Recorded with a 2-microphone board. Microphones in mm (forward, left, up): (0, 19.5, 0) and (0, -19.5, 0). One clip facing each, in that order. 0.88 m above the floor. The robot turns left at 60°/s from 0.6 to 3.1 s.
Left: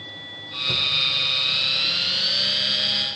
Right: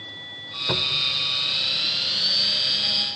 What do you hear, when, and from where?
0.7 s a cupboard door: 55° right (ahead or behind); by 1.2 s 80° right